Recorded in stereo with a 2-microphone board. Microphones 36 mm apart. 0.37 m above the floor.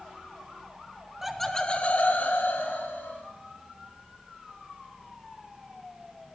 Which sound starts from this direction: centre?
Laughter, at 1.2 s.